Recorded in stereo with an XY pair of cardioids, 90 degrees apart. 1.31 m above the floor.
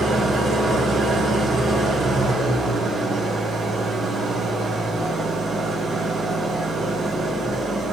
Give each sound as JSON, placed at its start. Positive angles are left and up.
{"t": 0.0, "sound": "an engine running", "azimuth_deg": -70, "distance_m": 3.0}